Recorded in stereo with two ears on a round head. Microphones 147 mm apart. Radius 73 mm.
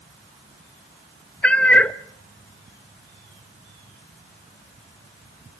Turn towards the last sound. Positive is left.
turn(degrees=5)  # may be behind; listen again after turning